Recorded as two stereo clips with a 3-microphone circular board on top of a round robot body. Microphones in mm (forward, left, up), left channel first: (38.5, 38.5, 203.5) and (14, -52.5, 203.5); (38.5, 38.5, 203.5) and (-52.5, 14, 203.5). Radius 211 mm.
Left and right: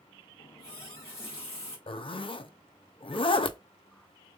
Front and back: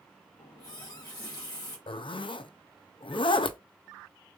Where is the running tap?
65° left, 1.6 m.